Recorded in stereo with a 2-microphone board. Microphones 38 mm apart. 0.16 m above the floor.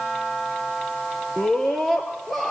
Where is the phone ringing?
No phone ringing in this recording.